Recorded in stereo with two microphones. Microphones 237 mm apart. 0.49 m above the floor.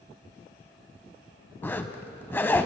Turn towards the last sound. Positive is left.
turn(degrees=10)  # may be behind; listen again after turning